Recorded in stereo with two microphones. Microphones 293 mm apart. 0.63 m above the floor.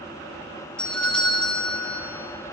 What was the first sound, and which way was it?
A doorbell, 5° left (ahead or behind).